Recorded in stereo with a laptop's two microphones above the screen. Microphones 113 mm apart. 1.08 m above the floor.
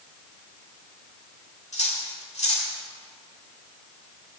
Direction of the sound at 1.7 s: 80° left.